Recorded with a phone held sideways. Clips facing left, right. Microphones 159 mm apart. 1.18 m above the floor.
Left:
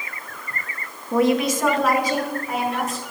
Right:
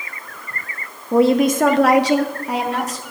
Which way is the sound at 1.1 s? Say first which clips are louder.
Right 5 dB; 15° right (ahead or behind).